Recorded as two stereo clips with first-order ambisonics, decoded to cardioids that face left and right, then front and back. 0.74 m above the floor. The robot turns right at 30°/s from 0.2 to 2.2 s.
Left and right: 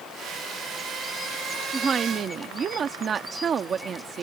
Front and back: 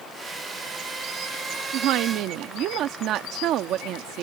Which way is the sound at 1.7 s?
160° right.